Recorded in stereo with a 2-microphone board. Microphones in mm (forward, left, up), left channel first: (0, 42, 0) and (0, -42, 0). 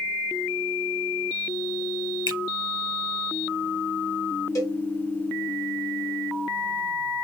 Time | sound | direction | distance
2.3 | a finger snap | 70° left (ahead or behind) | 3.5 m
4.5 | a cowbell | 40° left (ahead or behind) | 2.5 m